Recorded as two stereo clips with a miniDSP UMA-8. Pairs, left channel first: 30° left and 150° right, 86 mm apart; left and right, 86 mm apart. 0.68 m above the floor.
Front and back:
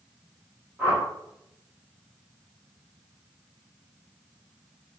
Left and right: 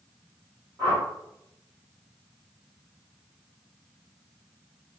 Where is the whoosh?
80° right, 1.6 m.